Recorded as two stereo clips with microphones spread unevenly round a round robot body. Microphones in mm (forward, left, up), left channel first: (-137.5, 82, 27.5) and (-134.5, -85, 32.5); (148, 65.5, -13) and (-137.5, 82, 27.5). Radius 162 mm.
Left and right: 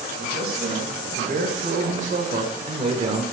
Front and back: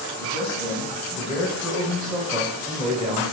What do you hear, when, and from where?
0.2 s a man speaking: 90° right, 2.5 m; by 3.2 s 120° right, 1.5 m